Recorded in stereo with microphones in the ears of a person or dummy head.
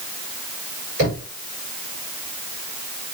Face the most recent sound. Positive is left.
turn(degrees=-50)  # may be behind; listen again after turning